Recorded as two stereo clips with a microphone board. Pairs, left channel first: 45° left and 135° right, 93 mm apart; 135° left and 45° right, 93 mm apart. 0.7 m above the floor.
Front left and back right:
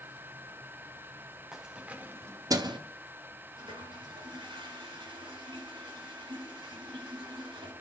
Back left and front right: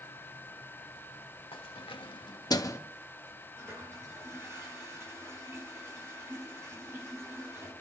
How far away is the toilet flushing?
About 8.5 m.